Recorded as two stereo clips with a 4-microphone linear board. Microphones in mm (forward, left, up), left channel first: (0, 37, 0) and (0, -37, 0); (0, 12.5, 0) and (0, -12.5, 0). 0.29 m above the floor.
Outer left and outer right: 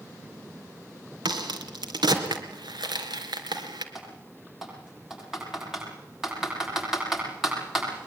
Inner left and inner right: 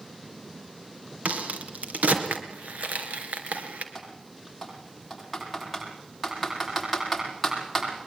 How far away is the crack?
About 3 m.